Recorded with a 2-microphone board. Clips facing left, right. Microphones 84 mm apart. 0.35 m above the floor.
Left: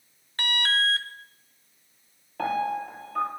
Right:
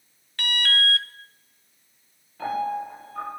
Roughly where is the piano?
Left.